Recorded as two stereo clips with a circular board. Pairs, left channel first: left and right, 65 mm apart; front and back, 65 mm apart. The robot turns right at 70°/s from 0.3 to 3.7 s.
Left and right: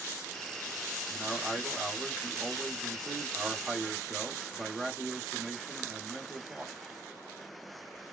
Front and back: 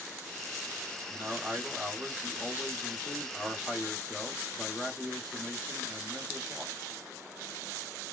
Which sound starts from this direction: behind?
A man speaking, at 1.1 s.